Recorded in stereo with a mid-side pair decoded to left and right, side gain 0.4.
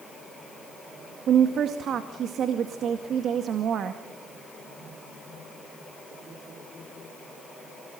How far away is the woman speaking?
About 2 m.